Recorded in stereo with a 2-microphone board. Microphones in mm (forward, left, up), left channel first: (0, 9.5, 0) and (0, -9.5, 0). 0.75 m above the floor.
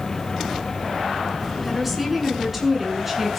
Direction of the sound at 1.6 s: 5° right (ahead or behind).